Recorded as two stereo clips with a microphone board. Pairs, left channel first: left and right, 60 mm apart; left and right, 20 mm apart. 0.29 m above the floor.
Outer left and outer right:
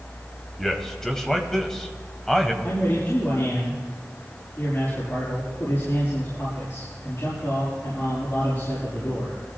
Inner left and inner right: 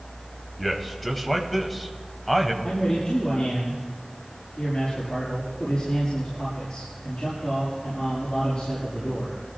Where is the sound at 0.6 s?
5° left (ahead or behind), 1.6 m.